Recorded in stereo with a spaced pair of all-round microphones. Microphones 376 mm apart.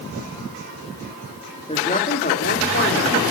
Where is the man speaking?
15° left (ahead or behind), 2 m; by 3.2 s 35° left (ahead or behind), 3.5 m.